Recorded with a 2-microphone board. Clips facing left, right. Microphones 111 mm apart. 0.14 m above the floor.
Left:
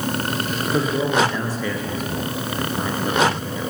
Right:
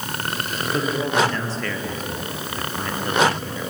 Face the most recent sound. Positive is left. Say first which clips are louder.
# left 2 dB
turn(degrees=10)  # may be behind; listen again after turning